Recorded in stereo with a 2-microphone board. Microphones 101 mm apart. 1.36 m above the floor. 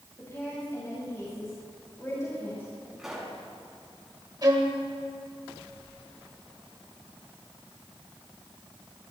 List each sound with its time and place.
0.2 s a woman speaking: 25° left (ahead or behind), 7 m
3.0 s a pop: 5° right (ahead or behind), 5 m
4.4 s a violin: 40° right (ahead or behind), 2.5 m